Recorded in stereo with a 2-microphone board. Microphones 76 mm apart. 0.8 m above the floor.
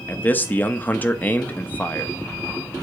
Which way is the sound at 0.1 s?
25° left (ahead or behind).